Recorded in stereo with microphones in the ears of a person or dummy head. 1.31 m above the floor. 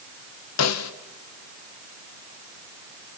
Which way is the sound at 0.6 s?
80° left.